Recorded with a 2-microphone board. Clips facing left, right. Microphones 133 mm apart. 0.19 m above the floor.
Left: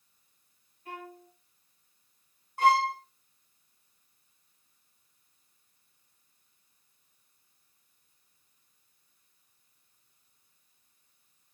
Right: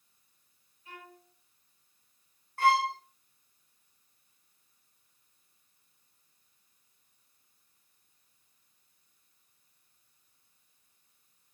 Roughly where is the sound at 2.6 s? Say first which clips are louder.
Left 2 dB; centre.